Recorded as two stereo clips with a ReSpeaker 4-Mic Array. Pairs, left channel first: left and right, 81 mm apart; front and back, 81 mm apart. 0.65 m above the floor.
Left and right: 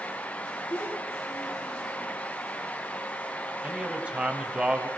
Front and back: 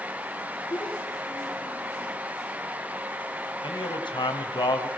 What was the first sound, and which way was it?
A child speaking, 40° left.